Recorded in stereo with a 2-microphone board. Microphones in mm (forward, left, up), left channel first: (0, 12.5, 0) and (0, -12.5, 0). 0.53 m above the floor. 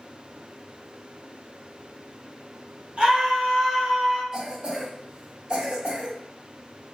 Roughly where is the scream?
Right.